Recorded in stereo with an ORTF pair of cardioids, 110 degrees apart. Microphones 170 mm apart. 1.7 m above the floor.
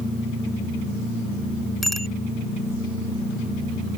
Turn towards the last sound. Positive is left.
turn(degrees=0)